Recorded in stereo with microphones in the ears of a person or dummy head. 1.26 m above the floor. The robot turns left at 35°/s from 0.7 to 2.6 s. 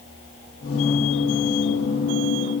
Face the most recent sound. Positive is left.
No sound to turn to.